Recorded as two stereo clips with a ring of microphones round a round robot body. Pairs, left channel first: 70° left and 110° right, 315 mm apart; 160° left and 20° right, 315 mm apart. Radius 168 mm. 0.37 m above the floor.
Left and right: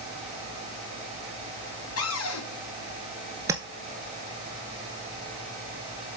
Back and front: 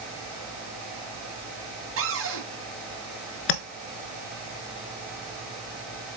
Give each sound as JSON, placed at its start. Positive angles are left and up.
{"t": 2.0, "sound": "a cupboard door", "azimuth_deg": 25, "distance_m": 2.0}
{"t": 3.5, "sound": "tapping", "azimuth_deg": 165, "distance_m": 0.9}